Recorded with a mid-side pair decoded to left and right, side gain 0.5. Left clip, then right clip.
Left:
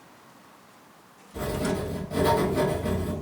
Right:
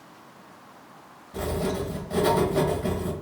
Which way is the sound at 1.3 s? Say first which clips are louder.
Right 1 dB; 50° right.